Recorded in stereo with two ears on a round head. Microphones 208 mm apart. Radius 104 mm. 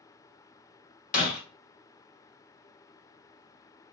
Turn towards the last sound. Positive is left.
turn(degrees=35)  # may be behind; listen again after turning